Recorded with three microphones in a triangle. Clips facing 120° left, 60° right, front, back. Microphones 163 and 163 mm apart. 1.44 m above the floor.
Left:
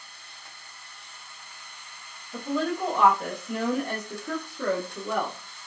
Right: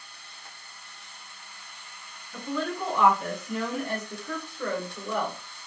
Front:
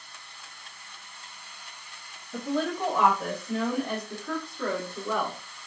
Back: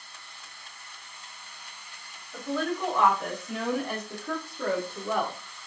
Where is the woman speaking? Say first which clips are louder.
Left 3 dB, front 1 dB; 55° left, 1.0 m; by 5.4 s 130° left, 1.6 m.